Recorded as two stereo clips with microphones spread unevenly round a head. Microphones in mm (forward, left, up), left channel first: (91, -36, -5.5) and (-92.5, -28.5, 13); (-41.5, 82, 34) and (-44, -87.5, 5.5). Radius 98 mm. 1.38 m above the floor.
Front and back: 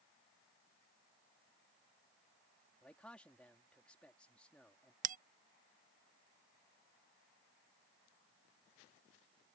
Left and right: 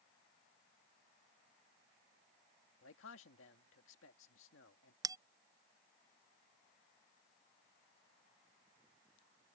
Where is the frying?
I don't hear frying.